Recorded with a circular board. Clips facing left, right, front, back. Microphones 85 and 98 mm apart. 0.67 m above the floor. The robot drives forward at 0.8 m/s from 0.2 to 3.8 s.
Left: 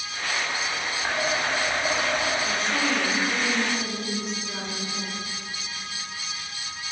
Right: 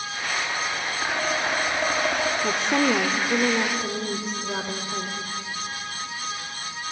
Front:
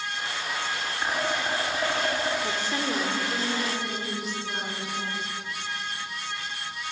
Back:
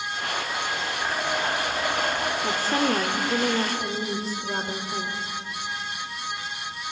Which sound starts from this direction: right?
A woman speaking, at 2.4 s.